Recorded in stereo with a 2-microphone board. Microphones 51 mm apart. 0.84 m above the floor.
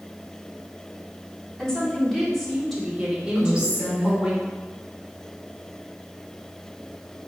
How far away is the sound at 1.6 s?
About 2.5 m.